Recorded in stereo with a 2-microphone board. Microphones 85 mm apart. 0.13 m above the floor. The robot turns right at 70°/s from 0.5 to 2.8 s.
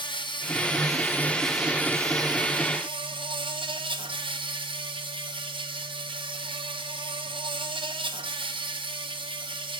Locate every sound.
0.0 s an insect: 110° left, 1.1 m; by 9.8 s 90° right, 1.1 m